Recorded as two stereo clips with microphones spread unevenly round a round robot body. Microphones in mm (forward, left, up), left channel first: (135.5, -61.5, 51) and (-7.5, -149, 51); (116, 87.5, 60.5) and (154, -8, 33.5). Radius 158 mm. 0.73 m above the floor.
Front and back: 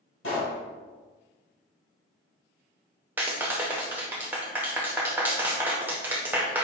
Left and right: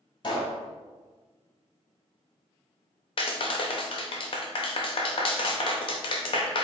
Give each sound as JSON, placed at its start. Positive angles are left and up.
{"t": 0.2, "sound": "a pop", "azimuth_deg": 75, "distance_m": 1.7}
{"t": 3.2, "sound": "a clap", "azimuth_deg": 135, "distance_m": 0.7}